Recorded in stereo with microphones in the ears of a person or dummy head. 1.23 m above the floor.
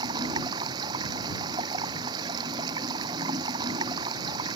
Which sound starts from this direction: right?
Running water, at 0.0 s.